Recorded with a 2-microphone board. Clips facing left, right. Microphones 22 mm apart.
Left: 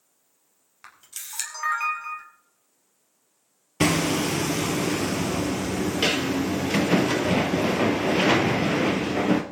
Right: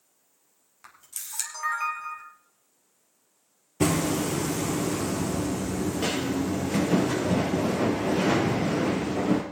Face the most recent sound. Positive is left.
turn(degrees=75)  # may be behind; listen again after turning